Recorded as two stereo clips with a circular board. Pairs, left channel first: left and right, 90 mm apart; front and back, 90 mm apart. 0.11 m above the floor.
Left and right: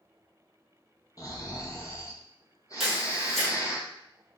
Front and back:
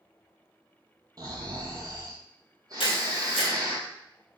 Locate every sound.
1.2 s snoring: 140° left, 0.7 m
2.8 s a camera shutter: straight ahead, 1.3 m